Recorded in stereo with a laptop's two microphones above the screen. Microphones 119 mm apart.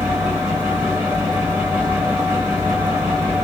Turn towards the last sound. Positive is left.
turn(degrees=-20)  # may be behind; listen again after turning